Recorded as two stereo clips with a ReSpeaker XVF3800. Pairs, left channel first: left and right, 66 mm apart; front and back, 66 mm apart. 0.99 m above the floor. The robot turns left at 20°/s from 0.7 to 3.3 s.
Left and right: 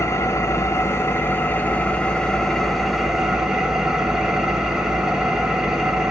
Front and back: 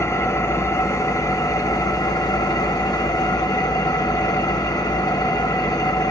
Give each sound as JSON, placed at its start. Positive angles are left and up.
{"t": 0.0, "sound": "an engine running", "azimuth_deg": 40, "distance_m": 0.9}